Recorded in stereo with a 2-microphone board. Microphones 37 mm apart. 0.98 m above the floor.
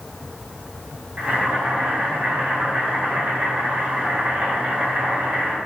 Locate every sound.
1.2 s boiling: 45° right (ahead or behind), 3 m